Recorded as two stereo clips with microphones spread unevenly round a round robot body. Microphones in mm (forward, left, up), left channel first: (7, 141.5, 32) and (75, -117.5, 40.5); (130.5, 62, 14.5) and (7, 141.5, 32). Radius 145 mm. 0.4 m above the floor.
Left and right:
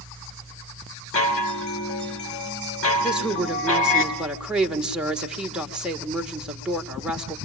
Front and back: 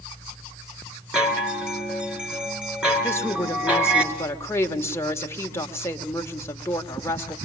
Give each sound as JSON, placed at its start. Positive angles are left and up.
{"t": 1.1, "sound": "a chime", "azimuth_deg": 65, "distance_m": 3.5}
{"t": 3.0, "sound": "a woman speaking", "azimuth_deg": 10, "distance_m": 1.5}